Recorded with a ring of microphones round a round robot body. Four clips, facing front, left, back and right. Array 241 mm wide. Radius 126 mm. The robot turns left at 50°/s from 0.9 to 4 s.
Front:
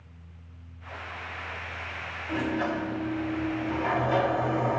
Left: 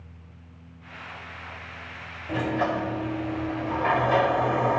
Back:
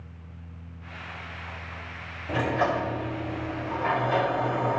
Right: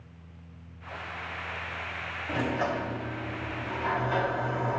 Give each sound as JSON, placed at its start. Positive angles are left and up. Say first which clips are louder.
{"t": 2.3, "sound": "a sliding door", "louder": "left 4 dB, back 3 dB", "azimuth_deg": 180, "distance_m": 1.1}